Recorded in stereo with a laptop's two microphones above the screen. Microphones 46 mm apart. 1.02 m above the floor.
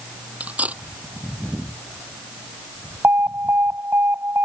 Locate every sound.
0.4 s cutlery clinking: 35° right (ahead or behind)
3.0 s an alarm: 65° right (ahead or behind)